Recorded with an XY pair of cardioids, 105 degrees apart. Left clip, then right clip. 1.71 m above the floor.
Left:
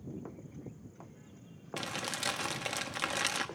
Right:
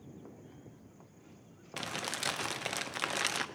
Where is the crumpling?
5° right, 1.0 m.